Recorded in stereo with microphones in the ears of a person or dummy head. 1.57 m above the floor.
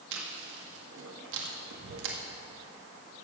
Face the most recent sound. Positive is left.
turn(degrees=-75)  # may be behind; listen again after turning